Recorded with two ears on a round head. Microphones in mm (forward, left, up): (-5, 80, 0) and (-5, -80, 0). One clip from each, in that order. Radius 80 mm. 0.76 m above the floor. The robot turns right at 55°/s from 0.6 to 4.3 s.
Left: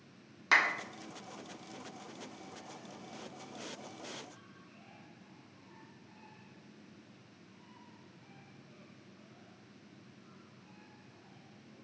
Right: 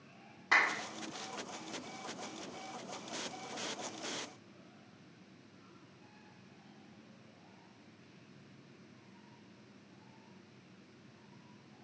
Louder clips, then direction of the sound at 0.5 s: Left 2 dB; 65° left (ahead or behind).